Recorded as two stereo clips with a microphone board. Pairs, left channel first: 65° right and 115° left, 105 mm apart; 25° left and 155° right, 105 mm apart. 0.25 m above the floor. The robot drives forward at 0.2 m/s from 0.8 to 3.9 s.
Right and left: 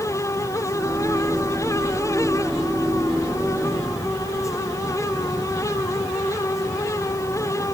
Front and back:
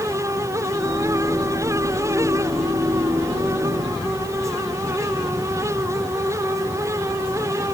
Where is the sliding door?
No sliding door in this recording.